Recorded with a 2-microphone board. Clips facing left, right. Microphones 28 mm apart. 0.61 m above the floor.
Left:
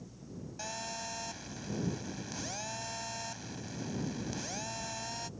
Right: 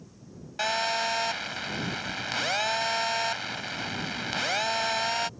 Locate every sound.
0.6 s a phone buzzing: 70° right (ahead or behind)